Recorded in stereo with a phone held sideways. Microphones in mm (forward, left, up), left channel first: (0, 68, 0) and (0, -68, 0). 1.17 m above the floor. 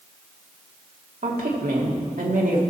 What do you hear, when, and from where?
1.2 s a woman speaking: 70° right (ahead or behind), 2.5 m